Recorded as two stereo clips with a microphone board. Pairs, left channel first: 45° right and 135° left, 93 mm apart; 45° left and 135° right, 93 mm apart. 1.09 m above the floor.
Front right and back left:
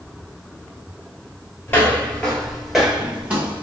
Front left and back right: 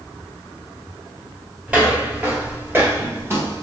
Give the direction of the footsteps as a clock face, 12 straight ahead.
2 o'clock.